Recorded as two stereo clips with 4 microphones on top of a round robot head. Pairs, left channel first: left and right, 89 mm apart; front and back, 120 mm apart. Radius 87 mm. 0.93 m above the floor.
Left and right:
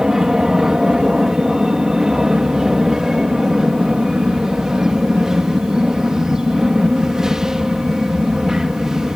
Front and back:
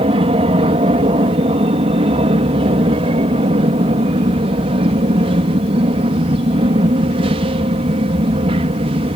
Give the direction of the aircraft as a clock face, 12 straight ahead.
6 o'clock.